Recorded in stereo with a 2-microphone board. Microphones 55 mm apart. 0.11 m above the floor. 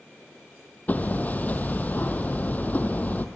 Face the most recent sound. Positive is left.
turn(degrees=30)  # may be behind; listen again after turning